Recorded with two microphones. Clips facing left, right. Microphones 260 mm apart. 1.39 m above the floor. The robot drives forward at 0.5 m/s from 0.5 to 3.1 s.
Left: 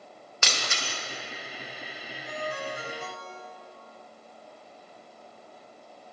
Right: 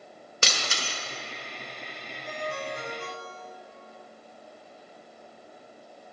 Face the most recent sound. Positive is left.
turn(degrees=-40)  # may be behind; listen again after turning